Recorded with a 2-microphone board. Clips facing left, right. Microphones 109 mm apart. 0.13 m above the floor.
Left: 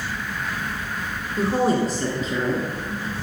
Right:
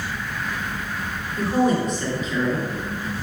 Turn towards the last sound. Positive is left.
turn(degrees=35)  # may be behind; listen again after turning